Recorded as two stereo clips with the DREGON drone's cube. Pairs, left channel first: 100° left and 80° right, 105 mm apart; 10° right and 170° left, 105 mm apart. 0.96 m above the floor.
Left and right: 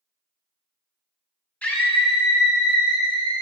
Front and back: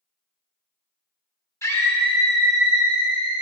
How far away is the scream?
About 1.1 m.